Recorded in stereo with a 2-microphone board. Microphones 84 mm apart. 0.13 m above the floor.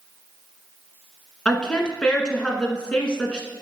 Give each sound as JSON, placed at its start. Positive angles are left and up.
{"t": 1.4, "sound": "a woman speaking", "side_deg": 10, "distance_m": 1.3}